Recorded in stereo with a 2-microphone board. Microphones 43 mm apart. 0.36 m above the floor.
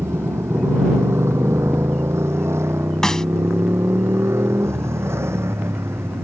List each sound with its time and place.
0.0 s a motorcycle: 85° right; by 6.2 s 80° right
3.0 s a snare drum: 15° left (ahead or behind)